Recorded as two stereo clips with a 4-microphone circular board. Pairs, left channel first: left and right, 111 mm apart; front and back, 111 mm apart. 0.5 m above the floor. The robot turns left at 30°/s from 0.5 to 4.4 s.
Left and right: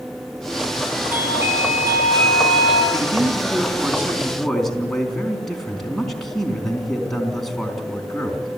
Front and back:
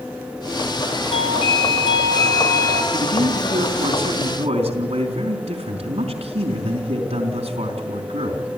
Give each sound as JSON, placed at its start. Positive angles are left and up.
{"t": 1.1, "sound": "a doorbell", "azimuth_deg": -15, "distance_m": 4.0}
{"t": 2.9, "sound": "a man speaking", "azimuth_deg": -135, "distance_m": 4.0}